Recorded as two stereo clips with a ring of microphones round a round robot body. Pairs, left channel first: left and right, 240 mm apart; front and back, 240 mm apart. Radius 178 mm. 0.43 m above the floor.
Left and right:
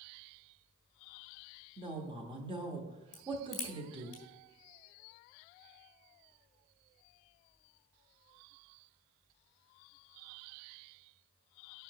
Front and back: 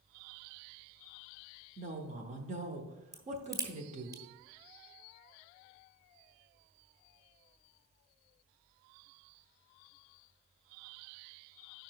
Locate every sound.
1.8 s a woman speaking: 145° right, 0.9 m
3.1 s a crack: 105° left, 1.7 m